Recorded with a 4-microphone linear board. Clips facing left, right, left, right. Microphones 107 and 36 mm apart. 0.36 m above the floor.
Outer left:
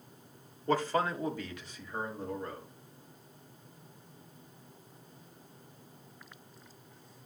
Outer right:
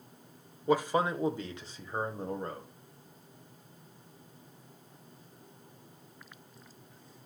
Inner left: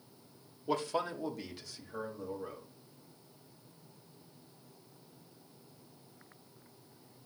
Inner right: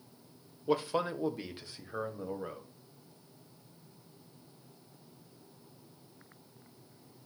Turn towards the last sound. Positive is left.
turn(degrees=-40)  # may be behind; listen again after turning